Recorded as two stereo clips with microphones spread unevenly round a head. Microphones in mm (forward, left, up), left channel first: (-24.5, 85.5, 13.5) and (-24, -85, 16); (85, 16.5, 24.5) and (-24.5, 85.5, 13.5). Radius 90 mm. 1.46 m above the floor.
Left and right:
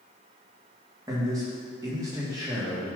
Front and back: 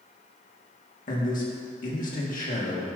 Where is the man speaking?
15° right, 1.7 m.